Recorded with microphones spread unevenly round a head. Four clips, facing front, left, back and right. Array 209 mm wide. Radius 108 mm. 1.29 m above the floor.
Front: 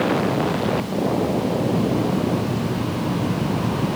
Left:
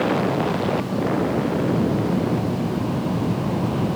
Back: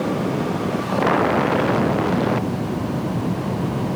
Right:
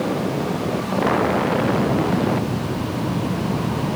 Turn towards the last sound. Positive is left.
No sound to turn to.